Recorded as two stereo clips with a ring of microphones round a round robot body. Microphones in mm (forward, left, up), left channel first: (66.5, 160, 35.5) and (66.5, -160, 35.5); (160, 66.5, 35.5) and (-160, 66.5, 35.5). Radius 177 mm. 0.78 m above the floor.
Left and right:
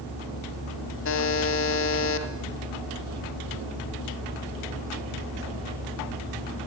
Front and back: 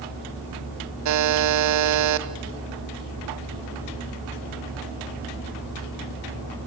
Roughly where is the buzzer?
Behind left.